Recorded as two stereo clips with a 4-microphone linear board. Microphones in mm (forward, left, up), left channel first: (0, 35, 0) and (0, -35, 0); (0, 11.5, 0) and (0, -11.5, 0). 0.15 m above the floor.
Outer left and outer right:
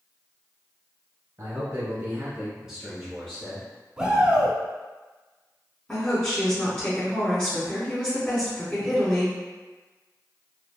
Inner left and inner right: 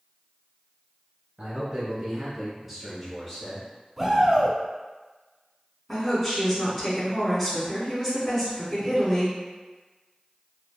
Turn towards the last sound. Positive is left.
turn(degrees=15)  # may be behind; listen again after turning